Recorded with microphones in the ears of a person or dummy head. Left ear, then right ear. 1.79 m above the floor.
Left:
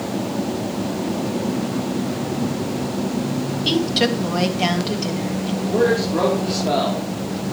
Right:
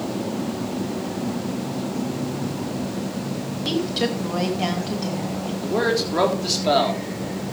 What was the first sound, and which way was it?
A woman speaking, 15° left (ahead or behind).